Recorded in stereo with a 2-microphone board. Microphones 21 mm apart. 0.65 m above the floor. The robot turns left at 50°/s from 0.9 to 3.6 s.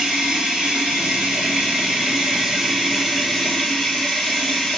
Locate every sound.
0.0 s running water: 60° right, 2 m; by 4.8 s 165° left, 2 m